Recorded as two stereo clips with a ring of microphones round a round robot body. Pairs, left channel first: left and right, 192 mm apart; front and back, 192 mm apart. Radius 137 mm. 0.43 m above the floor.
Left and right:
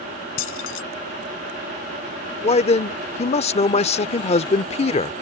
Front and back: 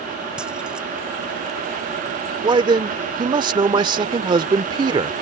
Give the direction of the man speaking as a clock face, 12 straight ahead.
8 o'clock.